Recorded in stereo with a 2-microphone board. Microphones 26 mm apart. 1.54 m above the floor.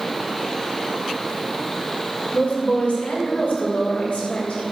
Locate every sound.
2.3 s a woman speaking: 75° left (ahead or behind), 6 m; by 4.6 s 85° left, 8 m